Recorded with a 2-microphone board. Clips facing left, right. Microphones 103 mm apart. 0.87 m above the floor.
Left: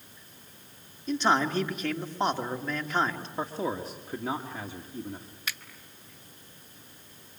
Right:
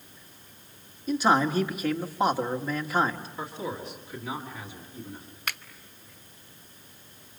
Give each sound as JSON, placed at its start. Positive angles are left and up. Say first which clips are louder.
{"t": 1.1, "sound": "a man speaking", "louder": "right 2 dB", "side_deg": -10, "distance_m": 1.8}
{"t": 3.4, "sound": "a man speaking", "louder": "left 6 dB", "side_deg": 40, "distance_m": 2.0}
{"t": 5.5, "sound": "a finger snap", "louder": "right 3 dB", "side_deg": -60, "distance_m": 0.8}